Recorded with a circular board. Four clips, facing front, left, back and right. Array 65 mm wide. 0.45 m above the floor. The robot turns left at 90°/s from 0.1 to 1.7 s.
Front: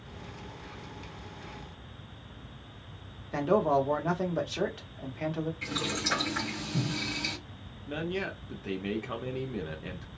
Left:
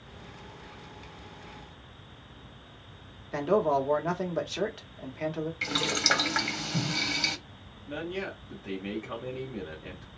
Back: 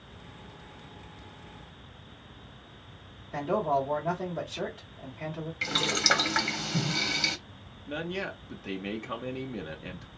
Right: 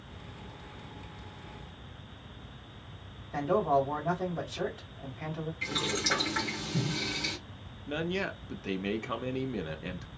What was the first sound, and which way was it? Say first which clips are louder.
A man speaking: left 2 dB, front 2 dB; 55° left.